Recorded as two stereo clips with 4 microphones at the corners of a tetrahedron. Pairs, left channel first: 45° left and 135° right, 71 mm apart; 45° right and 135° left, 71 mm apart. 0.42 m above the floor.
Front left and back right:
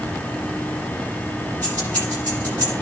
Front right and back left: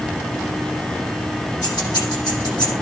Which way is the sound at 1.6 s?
20° right.